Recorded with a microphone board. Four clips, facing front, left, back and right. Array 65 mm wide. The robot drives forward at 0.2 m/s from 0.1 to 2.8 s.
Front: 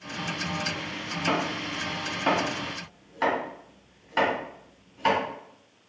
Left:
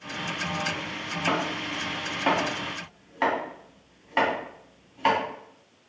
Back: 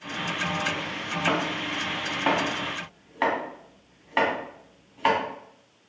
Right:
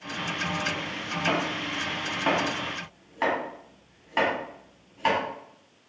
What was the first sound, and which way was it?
Chopping, 165° left.